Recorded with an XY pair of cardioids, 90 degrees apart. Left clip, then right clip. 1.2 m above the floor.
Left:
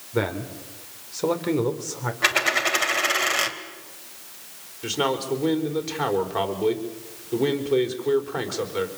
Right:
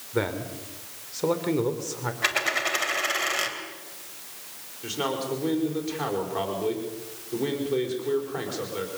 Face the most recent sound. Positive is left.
turn(degrees=45)